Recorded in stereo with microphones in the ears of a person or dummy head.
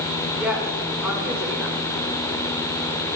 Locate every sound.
0.4 s a woman speaking: 5° right (ahead or behind), 5.5 m